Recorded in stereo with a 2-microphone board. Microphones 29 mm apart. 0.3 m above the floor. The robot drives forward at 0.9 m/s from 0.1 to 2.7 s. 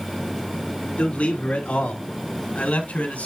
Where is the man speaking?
55° left (ahead or behind), 3 m; by 3.3 s 65° left (ahead or behind), 2.5 m.